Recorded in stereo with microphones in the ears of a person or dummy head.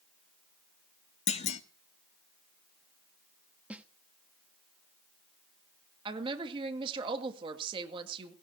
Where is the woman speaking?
25° right (ahead or behind), 1.9 m.